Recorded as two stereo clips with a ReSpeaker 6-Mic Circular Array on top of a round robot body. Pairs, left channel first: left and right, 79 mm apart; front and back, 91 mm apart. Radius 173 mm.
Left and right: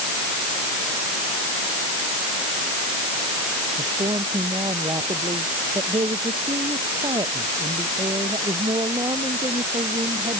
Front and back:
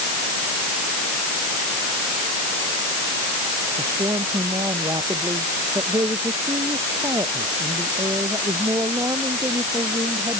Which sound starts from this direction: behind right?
A man speaking, at 3.8 s.